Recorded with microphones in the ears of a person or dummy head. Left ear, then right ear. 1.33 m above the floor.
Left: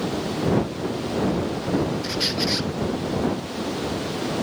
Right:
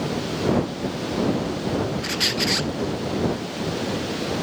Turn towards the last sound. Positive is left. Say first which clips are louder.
# right 2 dB
turn(degrees=-20)  # may be behind; listen again after turning